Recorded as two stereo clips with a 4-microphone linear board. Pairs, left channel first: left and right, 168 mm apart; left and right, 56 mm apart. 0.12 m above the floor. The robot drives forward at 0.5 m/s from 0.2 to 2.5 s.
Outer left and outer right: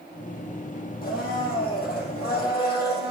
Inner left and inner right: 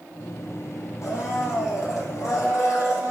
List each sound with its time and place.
1.0 s a blender: 60° left (ahead or behind), 3 m; by 3.1 s 70° left (ahead or behind), 3 m